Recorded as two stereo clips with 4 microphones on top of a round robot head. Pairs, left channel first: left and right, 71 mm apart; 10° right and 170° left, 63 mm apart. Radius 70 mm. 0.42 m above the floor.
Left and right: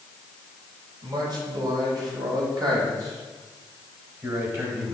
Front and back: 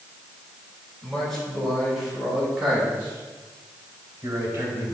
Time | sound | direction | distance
1.0 | a man speaking | 90° right | 3 m